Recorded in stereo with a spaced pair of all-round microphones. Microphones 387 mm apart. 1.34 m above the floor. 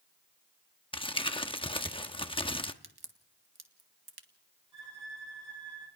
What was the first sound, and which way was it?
Crumpling, 15° left (ahead or behind).